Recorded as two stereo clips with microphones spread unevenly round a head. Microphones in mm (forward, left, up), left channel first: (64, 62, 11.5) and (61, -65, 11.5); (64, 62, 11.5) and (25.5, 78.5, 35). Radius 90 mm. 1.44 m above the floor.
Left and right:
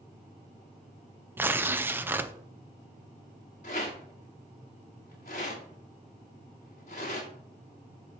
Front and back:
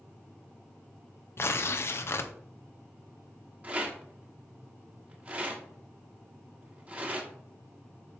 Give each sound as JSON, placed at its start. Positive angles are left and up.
{"t": 1.4, "sound": "tearing paper", "azimuth_deg": -15, "distance_m": 0.7}
{"t": 3.6, "sound": "a rattle", "azimuth_deg": 135, "distance_m": 1.5}